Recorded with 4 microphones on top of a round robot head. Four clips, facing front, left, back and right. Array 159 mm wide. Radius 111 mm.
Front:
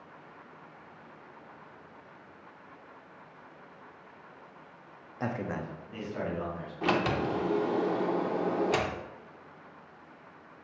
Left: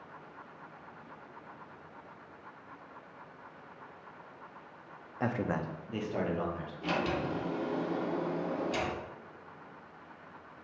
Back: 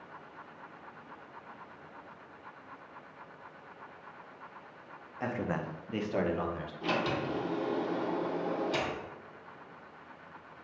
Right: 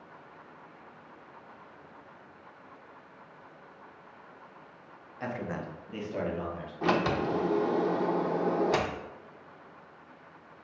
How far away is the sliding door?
About 0.6 m.